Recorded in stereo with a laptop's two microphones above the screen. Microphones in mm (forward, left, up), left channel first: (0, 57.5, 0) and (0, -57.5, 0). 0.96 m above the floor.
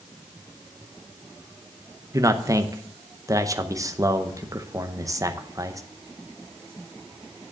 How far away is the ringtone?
No ringtone in this recording.